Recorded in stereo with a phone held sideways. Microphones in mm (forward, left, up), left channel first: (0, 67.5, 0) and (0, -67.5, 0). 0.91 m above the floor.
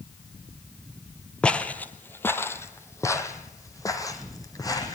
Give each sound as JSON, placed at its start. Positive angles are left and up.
{"t": 1.4, "sound": "footsteps", "side_deg": 10, "distance_m": 1.2}